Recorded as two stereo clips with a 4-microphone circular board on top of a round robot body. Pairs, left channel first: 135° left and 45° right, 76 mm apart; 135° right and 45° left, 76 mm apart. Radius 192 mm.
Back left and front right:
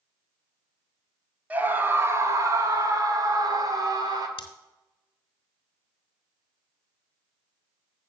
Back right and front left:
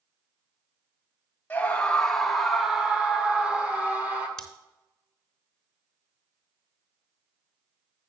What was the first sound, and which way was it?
A scream, 90° right.